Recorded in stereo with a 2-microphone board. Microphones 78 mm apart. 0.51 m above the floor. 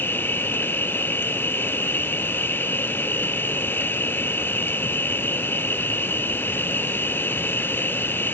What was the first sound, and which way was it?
An insect, 25° left (ahead or behind).